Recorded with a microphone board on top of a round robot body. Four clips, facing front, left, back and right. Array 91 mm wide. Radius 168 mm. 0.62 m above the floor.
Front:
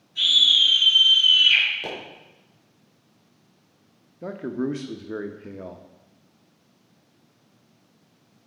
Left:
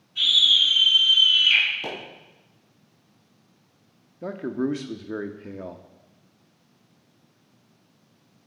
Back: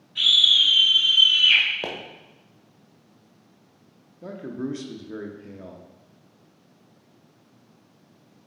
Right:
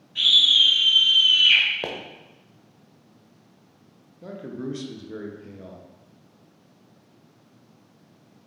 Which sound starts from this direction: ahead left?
A man speaking, at 4.2 s.